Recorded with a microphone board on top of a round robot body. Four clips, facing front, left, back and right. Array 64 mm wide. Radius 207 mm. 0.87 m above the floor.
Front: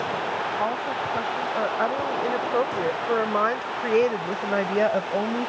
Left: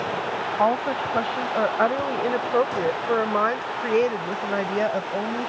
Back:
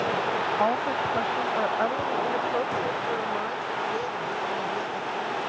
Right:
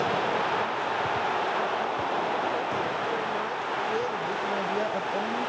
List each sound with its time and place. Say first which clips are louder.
0.6 s a woman speaking: left 6 dB, back 2 dB; 100° left; by 5.5 s 20° left